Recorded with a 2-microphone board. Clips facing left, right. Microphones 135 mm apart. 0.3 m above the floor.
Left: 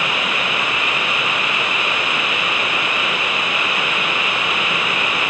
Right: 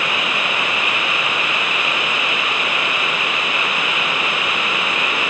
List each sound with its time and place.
Only background noise.